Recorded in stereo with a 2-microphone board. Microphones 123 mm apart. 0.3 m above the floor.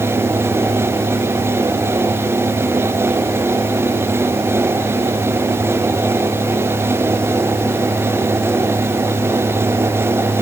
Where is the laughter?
No laughter in this recording.